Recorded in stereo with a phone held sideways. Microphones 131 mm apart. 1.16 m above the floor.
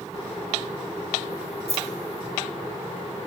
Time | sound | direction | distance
1.7 | keys jangling | 55° right (ahead or behind) | 0.8 m